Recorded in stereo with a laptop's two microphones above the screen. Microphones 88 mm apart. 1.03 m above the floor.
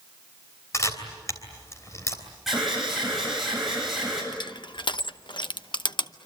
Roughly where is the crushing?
Left.